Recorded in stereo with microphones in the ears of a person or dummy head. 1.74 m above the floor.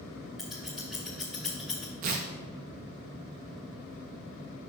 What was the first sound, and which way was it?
Scissors, centre (ahead or behind).